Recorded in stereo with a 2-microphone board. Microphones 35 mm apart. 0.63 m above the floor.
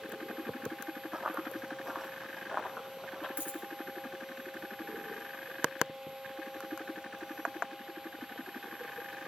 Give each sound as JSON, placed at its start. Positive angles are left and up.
{"t": 1.1, "sound": "running footsteps", "side_deg": -20, "distance_m": 1.3}
{"t": 3.4, "sound": "a dropped coin", "side_deg": 75, "distance_m": 1.6}